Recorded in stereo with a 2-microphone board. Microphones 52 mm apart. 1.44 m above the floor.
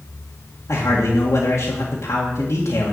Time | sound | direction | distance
0.7 | a man speaking | 75° left (ahead or behind) | 2 m